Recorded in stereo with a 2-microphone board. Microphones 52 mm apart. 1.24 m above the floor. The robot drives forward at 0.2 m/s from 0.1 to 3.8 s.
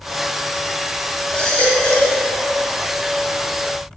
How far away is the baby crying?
About 2.5 m.